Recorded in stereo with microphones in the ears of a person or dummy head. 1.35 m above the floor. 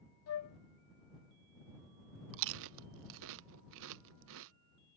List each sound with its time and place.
0.3 s a flute: 85° left
2.3 s chewing: 75° right (ahead or behind)